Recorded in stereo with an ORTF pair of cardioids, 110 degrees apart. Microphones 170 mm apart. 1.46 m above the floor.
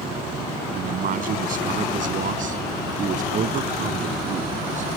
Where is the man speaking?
55° right; by 4.9 s 45° right.